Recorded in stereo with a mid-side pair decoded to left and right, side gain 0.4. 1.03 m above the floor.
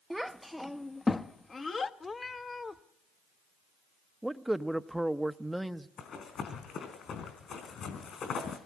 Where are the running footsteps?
65° left, 4 m.